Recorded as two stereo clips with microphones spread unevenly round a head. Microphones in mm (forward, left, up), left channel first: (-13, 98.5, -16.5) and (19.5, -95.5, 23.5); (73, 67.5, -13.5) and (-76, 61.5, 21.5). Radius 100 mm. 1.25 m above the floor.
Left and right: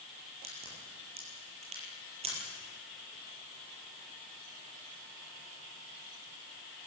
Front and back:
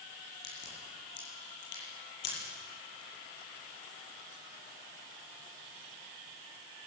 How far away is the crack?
About 9 m.